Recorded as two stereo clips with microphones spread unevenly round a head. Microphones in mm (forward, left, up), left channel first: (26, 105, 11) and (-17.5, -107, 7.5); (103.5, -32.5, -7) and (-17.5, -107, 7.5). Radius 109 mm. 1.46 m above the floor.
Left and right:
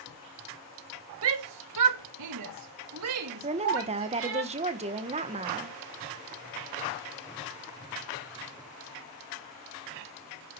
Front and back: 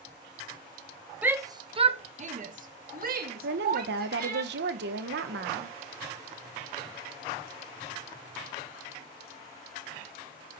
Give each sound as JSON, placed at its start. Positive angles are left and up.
{"t": 1.2, "sound": "a shout", "azimuth_deg": -70, "distance_m": 1.2}
{"t": 3.4, "sound": "a woman speaking", "azimuth_deg": -165, "distance_m": 1.5}